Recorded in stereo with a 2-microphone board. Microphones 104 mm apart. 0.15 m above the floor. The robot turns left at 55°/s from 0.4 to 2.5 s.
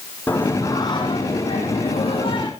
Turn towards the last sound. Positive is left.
turn(degrees=50)